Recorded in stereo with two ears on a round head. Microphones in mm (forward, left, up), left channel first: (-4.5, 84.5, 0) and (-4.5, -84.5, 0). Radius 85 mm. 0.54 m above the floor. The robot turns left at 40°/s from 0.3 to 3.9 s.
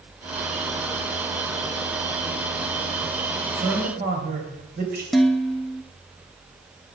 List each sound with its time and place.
3.5 s a man speaking: 65° right (ahead or behind), 3.5 m; by 5.0 s 55° right (ahead or behind), 3.5 m
5.1 s dishes clattering: centre (ahead or behind), 0.5 m